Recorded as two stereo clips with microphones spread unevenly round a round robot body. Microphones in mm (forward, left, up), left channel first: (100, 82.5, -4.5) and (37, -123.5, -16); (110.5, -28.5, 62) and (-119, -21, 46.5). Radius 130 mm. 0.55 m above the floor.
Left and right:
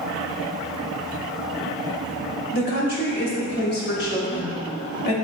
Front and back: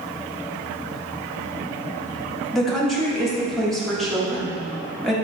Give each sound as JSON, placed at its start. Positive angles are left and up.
{"t": 2.5, "sound": "a woman speaking", "azimuth_deg": 90, "distance_m": 1.5}